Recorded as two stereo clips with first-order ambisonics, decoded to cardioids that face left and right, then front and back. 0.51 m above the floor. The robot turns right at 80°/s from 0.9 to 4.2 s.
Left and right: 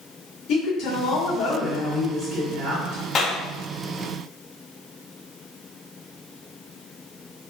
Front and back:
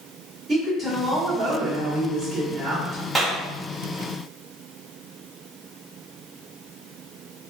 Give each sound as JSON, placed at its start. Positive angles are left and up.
{"t": 0.5, "sound": "a woman speaking", "azimuth_deg": 110, "distance_m": 1.4}
{"t": 3.1, "sound": "a clap", "azimuth_deg": 100, "distance_m": 0.7}